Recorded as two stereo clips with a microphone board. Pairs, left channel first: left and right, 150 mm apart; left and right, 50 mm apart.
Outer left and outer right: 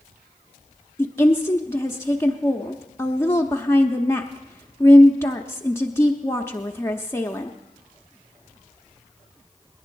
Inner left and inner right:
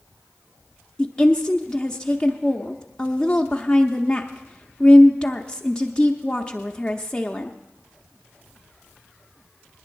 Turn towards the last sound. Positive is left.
turn(degrees=15)  # may be behind; listen again after turning